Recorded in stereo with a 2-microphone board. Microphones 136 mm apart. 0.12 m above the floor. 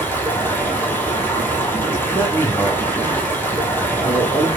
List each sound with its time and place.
0.0 s running water: 15° left (ahead or behind), 1.3 m
2.1 s a man speaking: 35° left (ahead or behind), 2.5 m